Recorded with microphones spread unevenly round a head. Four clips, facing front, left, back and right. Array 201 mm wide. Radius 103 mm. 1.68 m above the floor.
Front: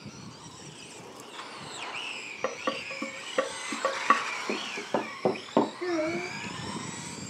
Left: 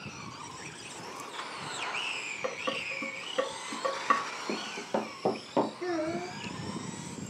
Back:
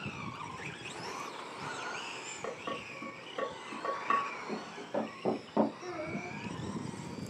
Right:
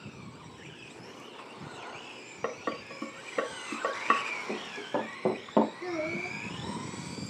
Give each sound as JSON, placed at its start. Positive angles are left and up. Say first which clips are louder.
{"t": 2.4, "sound": "dishes clattering", "louder": "even, front 8 dB", "azimuth_deg": -25, "distance_m": 1.7}
{"t": 4.5, "sound": "running footsteps", "louder": "left 1 dB, front 6 dB", "azimuth_deg": 15, "distance_m": 2.5}
{"t": 5.8, "sound": "a child speaking", "louder": "left 2 dB, front 10 dB", "azimuth_deg": 5, "distance_m": 3.0}